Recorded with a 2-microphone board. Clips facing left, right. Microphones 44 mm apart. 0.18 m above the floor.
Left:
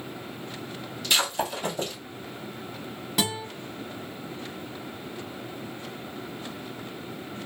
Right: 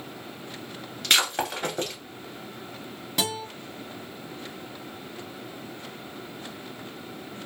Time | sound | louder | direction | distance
1.0 | breaking glass | right 2 dB | 60° right (ahead or behind) | 1.4 m
3.2 | a guitar | left 1 dB | 5° left (ahead or behind) | 1.1 m